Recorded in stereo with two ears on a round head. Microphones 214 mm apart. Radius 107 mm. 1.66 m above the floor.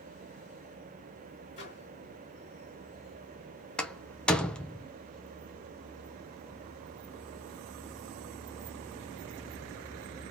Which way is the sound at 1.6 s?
30° left (ahead or behind).